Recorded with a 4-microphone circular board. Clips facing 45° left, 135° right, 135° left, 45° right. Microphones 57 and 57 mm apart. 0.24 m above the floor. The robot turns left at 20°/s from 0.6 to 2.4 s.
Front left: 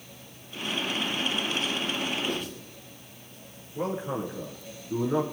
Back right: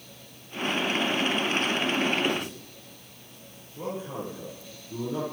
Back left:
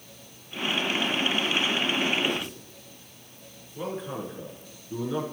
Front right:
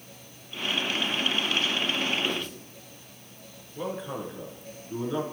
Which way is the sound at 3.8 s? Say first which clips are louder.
Front left 4 dB, even; 40° left.